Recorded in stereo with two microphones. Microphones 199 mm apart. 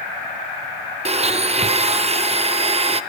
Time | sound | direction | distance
1.1 | a blender | 30° right (ahead or behind) | 0.6 m